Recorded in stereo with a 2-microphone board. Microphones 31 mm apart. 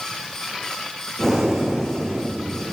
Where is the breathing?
5° left (ahead or behind), 3.5 m.